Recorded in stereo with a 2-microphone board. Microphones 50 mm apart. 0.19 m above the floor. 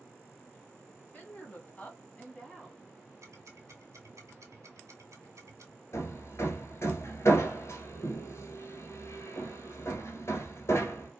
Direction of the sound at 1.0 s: 35° left (ahead or behind).